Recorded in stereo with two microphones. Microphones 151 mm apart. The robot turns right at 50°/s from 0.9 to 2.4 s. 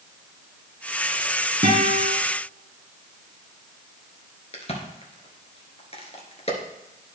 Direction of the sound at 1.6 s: 70° right (ahead or behind).